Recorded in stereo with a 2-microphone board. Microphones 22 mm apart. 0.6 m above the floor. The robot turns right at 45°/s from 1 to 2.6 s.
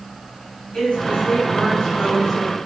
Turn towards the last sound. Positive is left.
turn(degrees=-175)